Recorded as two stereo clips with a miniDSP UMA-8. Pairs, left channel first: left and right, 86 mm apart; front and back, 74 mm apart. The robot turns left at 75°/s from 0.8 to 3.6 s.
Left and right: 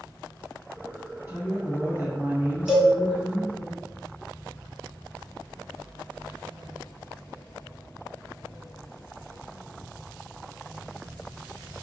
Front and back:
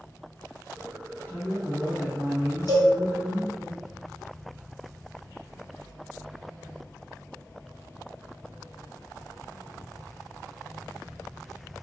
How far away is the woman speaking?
About 2.0 m.